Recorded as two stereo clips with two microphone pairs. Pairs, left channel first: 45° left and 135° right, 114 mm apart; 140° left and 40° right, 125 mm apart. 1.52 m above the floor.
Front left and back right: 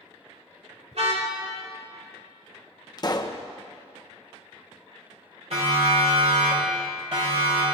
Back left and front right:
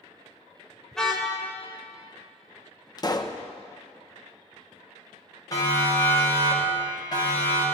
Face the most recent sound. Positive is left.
turn(degrees=-170)